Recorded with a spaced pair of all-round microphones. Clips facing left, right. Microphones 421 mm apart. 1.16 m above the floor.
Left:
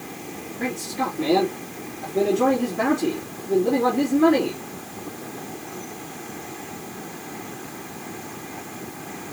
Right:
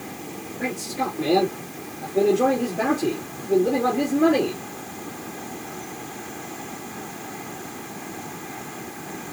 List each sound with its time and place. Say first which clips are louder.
0.6 s a man speaking: left 1 dB; 15° left (ahead or behind), 2.5 m